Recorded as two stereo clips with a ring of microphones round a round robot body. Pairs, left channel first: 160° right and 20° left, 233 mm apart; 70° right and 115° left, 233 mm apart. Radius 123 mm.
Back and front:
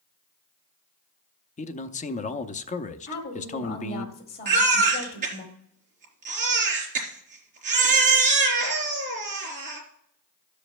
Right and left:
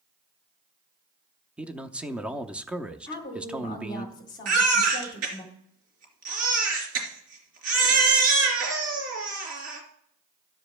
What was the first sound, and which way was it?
A man speaking, 165° right.